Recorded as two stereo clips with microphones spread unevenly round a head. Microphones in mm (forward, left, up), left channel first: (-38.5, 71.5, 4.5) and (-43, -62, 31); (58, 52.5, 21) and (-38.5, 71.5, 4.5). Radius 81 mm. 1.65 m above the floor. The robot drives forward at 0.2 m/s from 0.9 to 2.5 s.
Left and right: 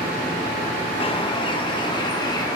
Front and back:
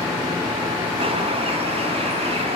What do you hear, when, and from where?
1.0 s a bird: 140° left, 0.9 m; by 2.6 s 150° left, 1.1 m